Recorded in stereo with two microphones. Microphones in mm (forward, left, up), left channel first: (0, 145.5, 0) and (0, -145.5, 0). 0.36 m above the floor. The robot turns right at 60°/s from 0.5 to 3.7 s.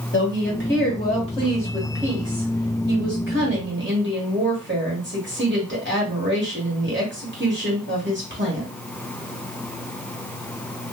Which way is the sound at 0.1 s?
100° left.